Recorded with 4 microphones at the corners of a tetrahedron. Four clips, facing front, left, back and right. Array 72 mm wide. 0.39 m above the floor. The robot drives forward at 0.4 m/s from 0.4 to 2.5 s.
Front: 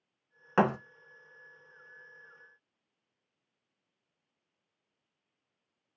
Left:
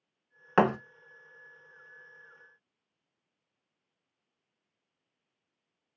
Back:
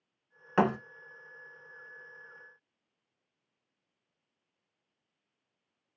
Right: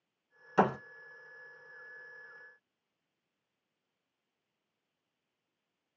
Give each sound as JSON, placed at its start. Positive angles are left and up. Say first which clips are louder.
{"t": 0.6, "sound": "a thud", "louder": "left 4 dB, even", "azimuth_deg": 75, "distance_m": 0.7}